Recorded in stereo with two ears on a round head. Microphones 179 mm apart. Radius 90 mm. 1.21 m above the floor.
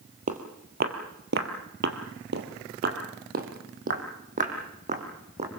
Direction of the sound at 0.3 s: 40° right (ahead or behind).